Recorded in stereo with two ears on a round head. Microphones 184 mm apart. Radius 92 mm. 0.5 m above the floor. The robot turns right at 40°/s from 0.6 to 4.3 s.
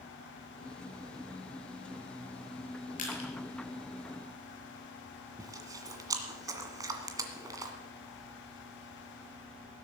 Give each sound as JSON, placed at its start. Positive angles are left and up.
{"t": 3.0, "sound": "crushing", "side_deg": 40, "distance_m": 5.0}
{"t": 5.4, "sound": "chewing", "side_deg": -15, "distance_m": 1.7}